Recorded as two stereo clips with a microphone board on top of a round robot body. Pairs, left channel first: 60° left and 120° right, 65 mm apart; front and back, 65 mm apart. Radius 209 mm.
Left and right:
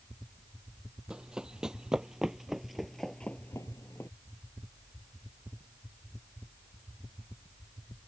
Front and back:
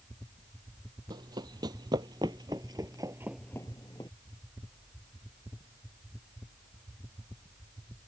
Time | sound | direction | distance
1.1 | running footsteps | 160° left | ?